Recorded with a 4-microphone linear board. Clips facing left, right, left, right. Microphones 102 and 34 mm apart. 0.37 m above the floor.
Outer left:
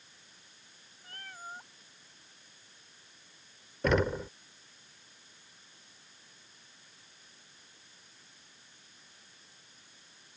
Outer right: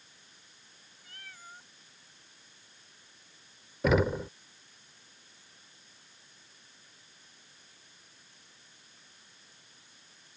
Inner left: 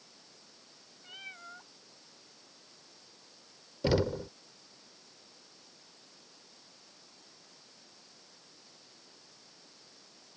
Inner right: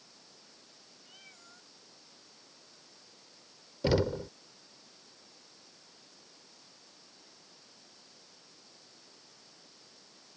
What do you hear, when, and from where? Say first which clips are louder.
1.0 s a cat meowing: outer left 6 dB, inner left 11 dB; 40° left (ahead or behind)
3.8 s knocking: outer right 2 dB, inner right 1 dB; 5° right (ahead or behind)